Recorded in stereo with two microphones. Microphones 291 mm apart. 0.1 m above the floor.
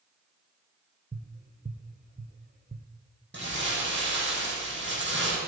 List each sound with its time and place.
1.1 s tapping: 30° right (ahead or behind), 1.2 m
3.3 s crumpling: 40° right (ahead or behind), 5 m